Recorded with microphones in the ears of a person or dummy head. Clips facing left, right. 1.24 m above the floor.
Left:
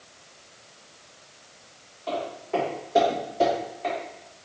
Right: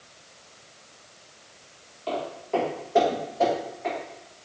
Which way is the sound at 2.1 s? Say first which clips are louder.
Even; 20° right (ahead or behind).